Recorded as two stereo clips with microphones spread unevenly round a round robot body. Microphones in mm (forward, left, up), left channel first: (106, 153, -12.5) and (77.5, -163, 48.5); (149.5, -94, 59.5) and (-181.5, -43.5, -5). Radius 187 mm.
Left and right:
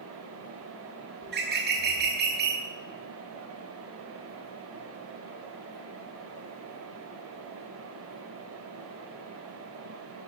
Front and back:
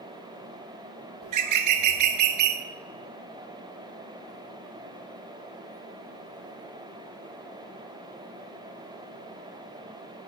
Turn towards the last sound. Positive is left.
turn(degrees=-160)